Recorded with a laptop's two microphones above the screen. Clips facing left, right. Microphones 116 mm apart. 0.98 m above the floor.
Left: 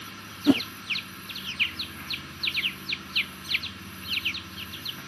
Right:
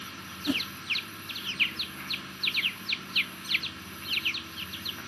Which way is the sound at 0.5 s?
65° left (ahead or behind).